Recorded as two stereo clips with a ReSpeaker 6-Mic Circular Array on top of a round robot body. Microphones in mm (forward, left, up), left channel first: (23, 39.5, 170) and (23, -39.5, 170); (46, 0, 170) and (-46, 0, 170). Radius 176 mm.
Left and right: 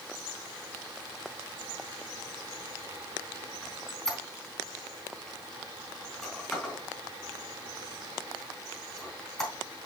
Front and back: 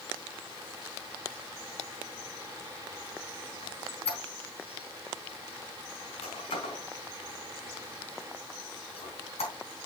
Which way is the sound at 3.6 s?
5° left.